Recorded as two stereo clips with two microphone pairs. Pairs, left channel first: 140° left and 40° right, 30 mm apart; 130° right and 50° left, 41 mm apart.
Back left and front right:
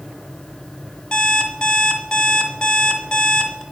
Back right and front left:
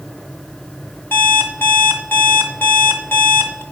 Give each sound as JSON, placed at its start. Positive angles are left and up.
{"t": 1.1, "sound": "an alarm clock", "azimuth_deg": -150, "distance_m": 1.7}